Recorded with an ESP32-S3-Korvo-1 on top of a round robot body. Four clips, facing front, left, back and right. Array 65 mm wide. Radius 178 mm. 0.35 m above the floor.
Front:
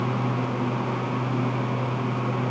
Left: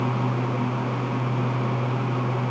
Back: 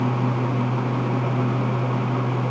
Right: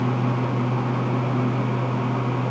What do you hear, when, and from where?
Only background noise.